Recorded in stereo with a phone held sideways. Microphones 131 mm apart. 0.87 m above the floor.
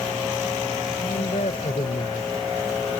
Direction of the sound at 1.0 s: 70° left (ahead or behind).